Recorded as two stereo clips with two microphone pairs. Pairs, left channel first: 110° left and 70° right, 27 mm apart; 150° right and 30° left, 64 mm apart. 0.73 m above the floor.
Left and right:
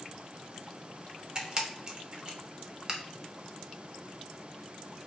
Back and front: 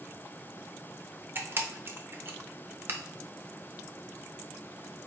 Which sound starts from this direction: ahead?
A camera shutter, at 1.4 s.